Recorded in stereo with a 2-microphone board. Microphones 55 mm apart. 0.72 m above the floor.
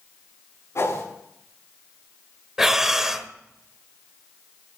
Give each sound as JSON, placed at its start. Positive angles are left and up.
{"t": 0.8, "sound": "a whoosh", "side_deg": 55, "distance_m": 7.0}
{"t": 2.6, "sound": "breathing", "side_deg": -10, "distance_m": 1.1}